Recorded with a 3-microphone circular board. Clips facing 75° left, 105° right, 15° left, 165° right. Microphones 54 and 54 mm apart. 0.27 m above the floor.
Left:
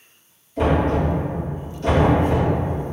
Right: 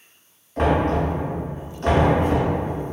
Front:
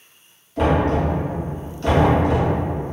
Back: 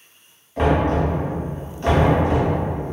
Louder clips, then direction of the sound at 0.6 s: Even, even; 105° right.